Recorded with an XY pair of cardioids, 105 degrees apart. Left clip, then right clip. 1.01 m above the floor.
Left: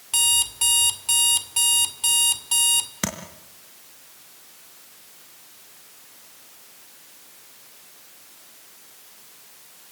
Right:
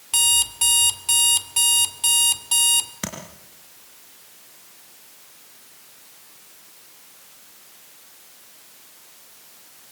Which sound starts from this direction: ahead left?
Tapping, at 3.0 s.